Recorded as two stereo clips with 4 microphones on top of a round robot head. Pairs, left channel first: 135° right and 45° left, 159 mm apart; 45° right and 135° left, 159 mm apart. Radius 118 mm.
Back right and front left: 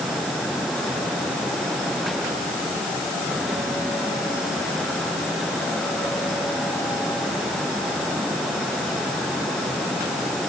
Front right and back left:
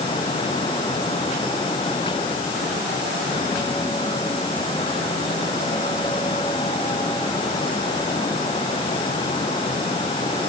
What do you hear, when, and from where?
Only background noise.